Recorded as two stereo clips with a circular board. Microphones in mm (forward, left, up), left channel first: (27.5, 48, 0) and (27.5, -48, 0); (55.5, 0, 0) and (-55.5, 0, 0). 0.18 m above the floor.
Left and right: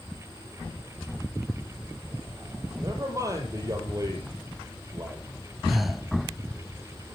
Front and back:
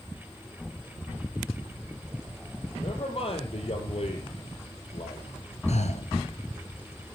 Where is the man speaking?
35° right, 5.5 m.